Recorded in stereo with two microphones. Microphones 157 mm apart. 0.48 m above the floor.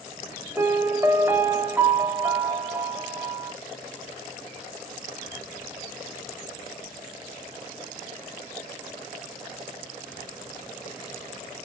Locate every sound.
0.6 s a piano: 10° right (ahead or behind), 0.7 m